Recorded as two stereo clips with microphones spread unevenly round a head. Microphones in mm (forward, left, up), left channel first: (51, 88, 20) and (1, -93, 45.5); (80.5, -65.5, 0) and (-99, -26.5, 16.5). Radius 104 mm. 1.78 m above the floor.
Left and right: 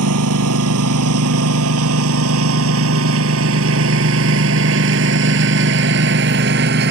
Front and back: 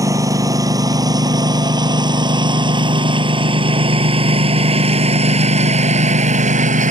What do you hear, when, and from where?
0.0 s a lawn mower: 120° right; by 6.9 s 145° right